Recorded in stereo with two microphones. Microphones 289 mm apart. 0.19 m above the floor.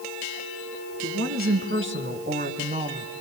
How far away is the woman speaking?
About 2.5 m.